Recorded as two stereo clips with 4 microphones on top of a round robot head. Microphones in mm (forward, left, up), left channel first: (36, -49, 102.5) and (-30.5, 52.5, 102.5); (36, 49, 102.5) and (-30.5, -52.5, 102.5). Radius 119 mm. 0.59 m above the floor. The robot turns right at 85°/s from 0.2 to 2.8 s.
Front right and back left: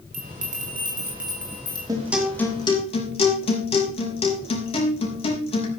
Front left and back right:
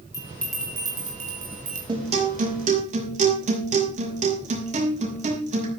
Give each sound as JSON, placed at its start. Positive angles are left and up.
{"t": 0.1, "sound": "a bell", "azimuth_deg": 120, "distance_m": 6.0}
{"t": 1.9, "sound": "a guitar", "azimuth_deg": -175, "distance_m": 5.0}